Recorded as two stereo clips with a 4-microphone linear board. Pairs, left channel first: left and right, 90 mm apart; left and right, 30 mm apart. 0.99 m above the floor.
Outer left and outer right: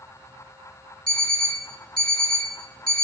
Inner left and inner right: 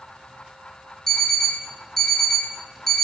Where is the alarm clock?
10° left (ahead or behind), 0.8 m.